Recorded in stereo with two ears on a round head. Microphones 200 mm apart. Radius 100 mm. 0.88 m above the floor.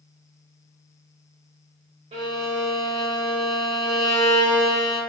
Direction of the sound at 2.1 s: 30° right (ahead or behind).